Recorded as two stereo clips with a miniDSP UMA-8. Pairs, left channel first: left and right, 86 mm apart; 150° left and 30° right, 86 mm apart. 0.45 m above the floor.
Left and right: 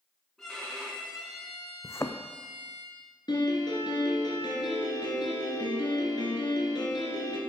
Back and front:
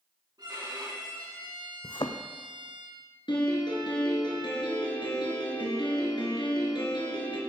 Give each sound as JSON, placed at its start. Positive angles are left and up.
{"t": 0.4, "sound": "a violin", "azimuth_deg": 5, "distance_m": 5.0}
{"t": 1.8, "sound": "a thud", "azimuth_deg": 145, "distance_m": 1.0}
{"t": 3.3, "sound": "a piano", "azimuth_deg": 125, "distance_m": 3.5}